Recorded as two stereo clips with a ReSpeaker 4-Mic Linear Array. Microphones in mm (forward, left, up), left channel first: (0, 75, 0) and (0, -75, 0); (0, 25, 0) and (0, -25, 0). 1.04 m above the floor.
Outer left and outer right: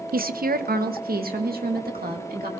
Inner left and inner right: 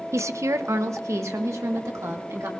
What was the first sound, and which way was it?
A woman speaking, 70° right (ahead or behind).